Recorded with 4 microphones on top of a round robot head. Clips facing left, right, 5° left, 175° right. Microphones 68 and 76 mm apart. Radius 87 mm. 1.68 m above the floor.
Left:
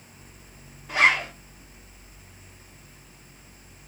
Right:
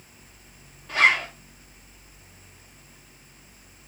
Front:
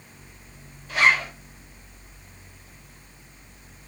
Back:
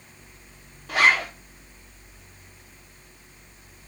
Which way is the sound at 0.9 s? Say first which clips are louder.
Even, back 1 dB; 175° left.